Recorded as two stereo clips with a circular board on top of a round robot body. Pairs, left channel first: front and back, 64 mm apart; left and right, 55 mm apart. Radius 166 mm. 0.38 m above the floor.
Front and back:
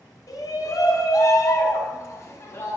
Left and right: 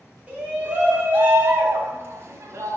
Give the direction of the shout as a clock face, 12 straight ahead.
1 o'clock.